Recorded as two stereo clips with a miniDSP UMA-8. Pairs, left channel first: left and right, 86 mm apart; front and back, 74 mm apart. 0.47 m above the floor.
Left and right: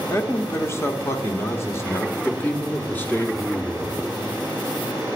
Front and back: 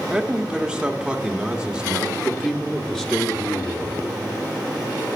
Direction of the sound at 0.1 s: 110° left.